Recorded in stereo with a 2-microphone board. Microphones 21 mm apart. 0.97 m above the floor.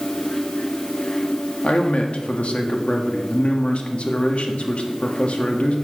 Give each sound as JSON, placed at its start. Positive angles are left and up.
{"t": 1.6, "sound": "a man speaking", "side_deg": 75, "distance_m": 1.6}